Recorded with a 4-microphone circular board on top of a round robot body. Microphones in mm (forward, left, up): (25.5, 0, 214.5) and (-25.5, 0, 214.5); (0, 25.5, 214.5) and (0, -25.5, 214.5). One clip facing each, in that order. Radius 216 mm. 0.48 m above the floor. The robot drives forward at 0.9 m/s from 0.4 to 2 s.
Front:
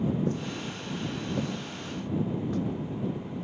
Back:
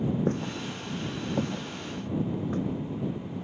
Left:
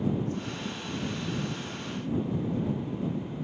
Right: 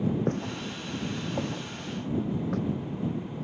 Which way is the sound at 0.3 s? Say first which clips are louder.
Back 2 dB, right 3 dB; 135° right.